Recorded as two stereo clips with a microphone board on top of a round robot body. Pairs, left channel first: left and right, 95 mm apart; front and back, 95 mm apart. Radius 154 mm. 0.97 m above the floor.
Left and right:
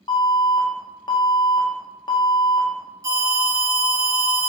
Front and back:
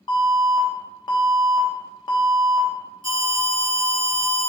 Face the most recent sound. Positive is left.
turn(degrees=-35)